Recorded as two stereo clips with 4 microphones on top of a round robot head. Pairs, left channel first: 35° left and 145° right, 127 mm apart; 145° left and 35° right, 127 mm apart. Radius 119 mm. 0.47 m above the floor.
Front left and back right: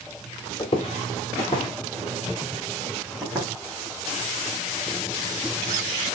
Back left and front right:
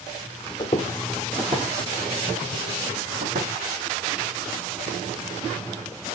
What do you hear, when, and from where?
0.6 s footsteps: 80° left, 0.7 m; by 3.5 s 65° right, 1.3 m